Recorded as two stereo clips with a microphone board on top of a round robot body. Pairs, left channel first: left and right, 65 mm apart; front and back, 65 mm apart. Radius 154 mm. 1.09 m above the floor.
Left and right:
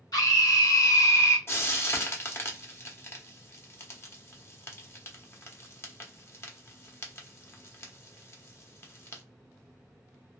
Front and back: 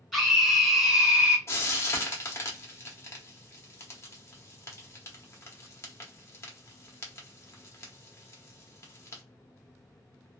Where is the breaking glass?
I don't hear breaking glass.